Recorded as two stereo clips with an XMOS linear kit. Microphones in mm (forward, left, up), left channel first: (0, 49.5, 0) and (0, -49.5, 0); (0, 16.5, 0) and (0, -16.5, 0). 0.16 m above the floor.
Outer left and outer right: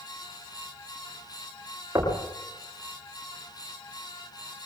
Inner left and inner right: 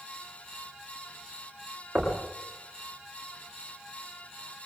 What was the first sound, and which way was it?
Knocking, 25° right (ahead or behind).